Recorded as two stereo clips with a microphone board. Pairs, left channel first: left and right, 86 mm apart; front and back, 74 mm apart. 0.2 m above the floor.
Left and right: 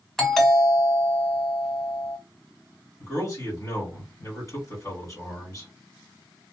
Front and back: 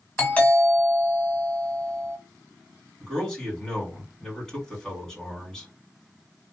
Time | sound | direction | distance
0.2 | a doorbell | 10° left | 1.4 m
3.0 | a man speaking | 80° left | 2 m